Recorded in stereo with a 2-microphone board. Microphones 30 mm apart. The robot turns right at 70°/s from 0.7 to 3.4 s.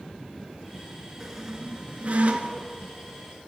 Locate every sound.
1.2 s a squeak: 5° right (ahead or behind), 0.6 m; by 2.7 s 65° right (ahead or behind), 0.6 m